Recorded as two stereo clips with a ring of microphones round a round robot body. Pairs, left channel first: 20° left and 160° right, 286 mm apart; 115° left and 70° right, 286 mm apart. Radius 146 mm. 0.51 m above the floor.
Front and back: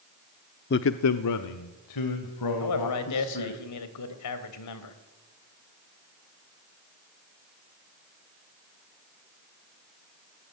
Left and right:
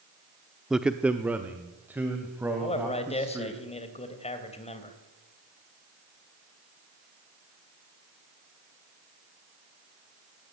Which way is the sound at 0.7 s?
20° left.